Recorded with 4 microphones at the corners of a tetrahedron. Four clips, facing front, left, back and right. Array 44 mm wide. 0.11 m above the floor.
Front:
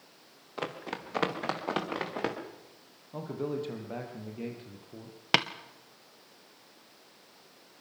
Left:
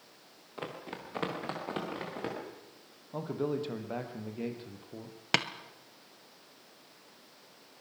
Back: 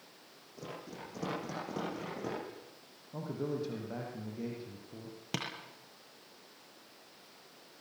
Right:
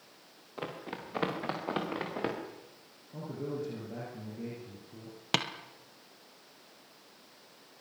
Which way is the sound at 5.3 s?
5° left.